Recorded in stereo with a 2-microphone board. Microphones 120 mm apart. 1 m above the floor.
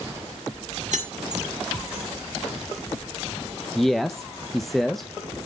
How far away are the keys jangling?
About 1.9 m.